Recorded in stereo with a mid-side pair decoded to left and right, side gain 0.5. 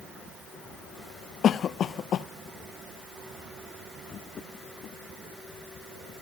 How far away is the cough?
About 0.7 m.